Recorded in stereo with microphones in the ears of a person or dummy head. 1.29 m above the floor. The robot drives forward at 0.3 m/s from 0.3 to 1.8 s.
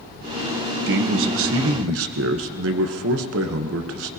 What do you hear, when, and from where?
0.9 s a man speaking: 70° right (ahead or behind), 1.1 m; by 4.1 s 85° right, 1.1 m